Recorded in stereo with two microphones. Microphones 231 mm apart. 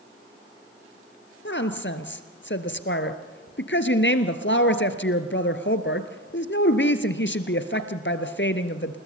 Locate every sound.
1.4 s a woman speaking: 50° left (ahead or behind), 1.7 m